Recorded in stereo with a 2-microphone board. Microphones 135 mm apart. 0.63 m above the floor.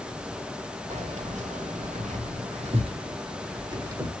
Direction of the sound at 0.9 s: 60° right (ahead or behind).